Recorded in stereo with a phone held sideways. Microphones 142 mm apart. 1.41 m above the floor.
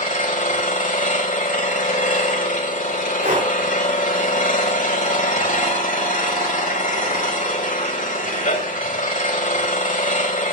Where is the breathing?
65° right (ahead or behind), 3 m.